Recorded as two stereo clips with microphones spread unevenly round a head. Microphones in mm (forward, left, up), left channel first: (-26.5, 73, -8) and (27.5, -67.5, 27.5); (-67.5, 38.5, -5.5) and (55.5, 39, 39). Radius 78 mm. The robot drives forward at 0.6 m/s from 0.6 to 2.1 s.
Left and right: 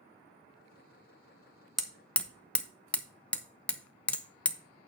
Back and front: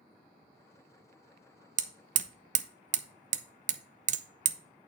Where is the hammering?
25° left, 0.8 m; by 4.6 s 30° left, 0.6 m.